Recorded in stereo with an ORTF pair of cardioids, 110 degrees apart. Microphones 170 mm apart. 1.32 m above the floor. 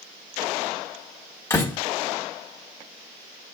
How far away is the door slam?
About 2 m.